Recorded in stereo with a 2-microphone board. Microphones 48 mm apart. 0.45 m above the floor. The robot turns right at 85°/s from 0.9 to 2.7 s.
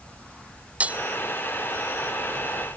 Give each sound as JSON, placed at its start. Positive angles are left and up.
{"t": 0.8, "sound": "breaking glass", "side_deg": -30}